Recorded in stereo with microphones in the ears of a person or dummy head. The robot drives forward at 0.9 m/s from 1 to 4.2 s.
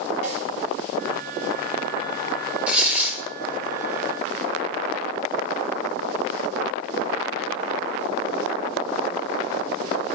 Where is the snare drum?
40° right (ahead or behind), 4 m.